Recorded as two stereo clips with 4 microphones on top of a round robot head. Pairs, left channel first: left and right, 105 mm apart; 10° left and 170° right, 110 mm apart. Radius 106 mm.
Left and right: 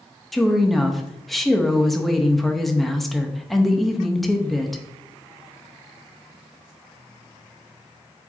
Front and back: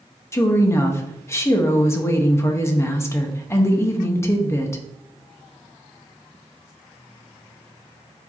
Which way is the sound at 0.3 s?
Straight ahead.